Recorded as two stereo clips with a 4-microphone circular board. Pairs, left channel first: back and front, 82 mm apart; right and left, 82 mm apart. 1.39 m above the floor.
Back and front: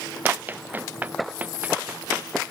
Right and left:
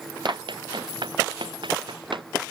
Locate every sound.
0.2 s running footsteps: 70° left; by 2.3 s 75° left